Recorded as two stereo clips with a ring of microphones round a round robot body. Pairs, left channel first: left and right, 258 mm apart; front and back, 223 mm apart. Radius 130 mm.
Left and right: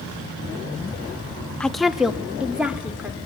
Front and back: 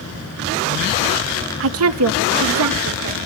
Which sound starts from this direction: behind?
A woman speaking, at 1.6 s.